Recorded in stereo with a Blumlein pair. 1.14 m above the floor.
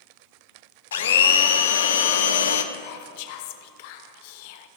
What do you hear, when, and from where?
0.9 s a blender: 65° left, 0.6 m
2.7 s whispering: 50° left, 0.6 m